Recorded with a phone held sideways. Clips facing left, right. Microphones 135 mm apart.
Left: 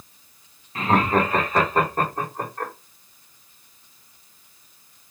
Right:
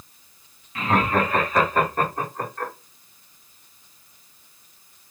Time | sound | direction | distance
0.8 | laughter | 35° left (ahead or behind) | 1.9 m